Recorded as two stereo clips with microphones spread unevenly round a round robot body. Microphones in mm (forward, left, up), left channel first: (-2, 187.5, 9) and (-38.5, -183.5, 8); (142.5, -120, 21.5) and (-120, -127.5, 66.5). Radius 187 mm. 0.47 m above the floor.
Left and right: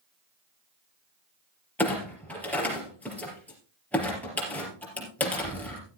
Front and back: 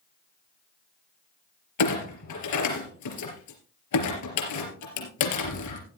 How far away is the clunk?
About 3.5 m.